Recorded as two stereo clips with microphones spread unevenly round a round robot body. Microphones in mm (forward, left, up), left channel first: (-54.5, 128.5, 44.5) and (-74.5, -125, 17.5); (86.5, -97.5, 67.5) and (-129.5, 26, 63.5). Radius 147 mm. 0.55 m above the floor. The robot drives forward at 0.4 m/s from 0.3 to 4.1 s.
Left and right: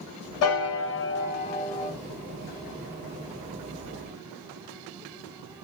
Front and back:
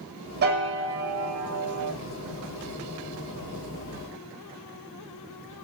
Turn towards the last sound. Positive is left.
turn(degrees=160)